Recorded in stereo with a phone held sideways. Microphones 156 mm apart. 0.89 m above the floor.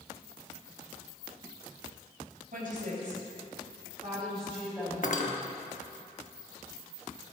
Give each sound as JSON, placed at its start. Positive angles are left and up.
{"t": 2.5, "sound": "a woman speaking", "side_deg": -60, "distance_m": 4.0}
{"t": 5.0, "sound": "cutlery clinking", "side_deg": 55, "distance_m": 1.0}